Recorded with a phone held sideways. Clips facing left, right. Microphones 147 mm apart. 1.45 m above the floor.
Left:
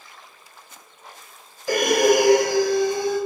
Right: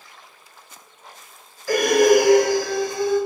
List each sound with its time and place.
1.7 s breathing: 20° left (ahead or behind), 1.1 m